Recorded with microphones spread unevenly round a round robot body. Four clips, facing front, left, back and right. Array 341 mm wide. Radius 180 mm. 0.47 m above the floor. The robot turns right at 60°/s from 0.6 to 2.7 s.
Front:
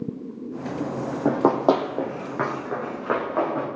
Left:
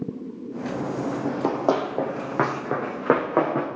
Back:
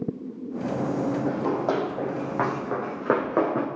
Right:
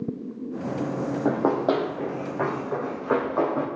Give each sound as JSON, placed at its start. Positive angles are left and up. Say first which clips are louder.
{"t": 1.2, "sound": "running footsteps", "louder": "right 1 dB, front 6 dB", "azimuth_deg": -15, "distance_m": 1.5}